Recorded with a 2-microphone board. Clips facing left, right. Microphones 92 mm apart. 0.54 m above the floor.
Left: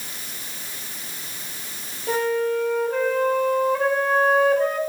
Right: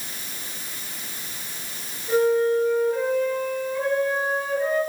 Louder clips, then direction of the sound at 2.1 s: Right 3 dB; 70° left (ahead or behind).